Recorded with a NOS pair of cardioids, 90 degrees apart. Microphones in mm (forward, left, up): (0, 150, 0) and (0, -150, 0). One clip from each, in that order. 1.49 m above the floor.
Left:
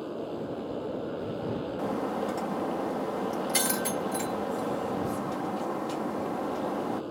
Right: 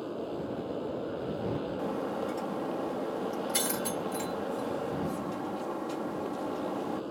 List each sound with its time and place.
0.0 s a motorcycle: 10° left
1.8 s breaking glass: 25° left